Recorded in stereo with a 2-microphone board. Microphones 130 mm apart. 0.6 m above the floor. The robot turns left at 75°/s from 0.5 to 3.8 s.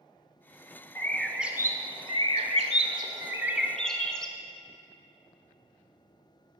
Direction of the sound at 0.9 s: 25° left.